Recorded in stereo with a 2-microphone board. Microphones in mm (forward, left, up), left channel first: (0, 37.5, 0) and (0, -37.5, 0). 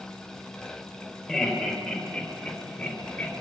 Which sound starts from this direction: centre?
Laughter, at 1.3 s.